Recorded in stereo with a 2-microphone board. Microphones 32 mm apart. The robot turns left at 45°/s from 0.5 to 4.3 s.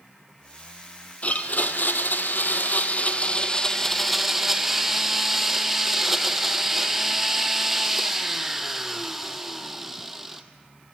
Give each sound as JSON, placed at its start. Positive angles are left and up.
{"t": 1.2, "sound": "a blender", "azimuth_deg": 130, "distance_m": 0.5}